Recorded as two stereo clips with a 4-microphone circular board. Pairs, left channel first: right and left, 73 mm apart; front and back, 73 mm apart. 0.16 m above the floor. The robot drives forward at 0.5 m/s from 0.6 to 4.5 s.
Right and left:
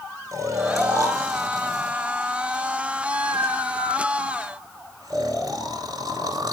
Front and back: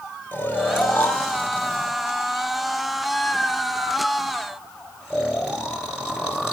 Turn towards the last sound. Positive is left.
turn(degrees=105)